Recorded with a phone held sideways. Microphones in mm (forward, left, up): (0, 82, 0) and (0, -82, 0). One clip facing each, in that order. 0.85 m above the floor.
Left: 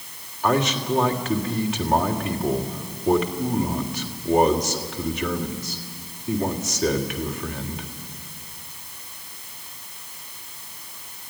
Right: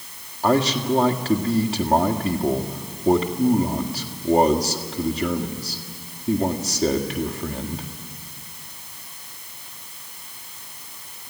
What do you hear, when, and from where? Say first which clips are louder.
0.4 s a man speaking: right 3 dB; 35° right (ahead or behind), 1.8 m